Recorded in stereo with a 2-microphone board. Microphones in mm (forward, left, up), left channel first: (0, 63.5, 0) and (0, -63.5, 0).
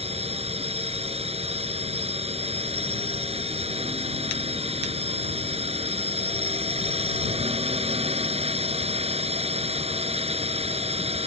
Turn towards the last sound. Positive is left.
turn(degrees=-50)  # may be behind; listen again after turning